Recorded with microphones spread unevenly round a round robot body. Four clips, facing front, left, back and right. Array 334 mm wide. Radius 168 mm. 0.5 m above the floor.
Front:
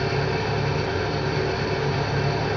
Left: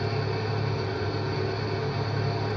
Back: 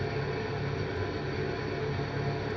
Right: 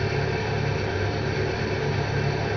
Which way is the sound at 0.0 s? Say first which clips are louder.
Right 3 dB, front 8 dB; 30° right.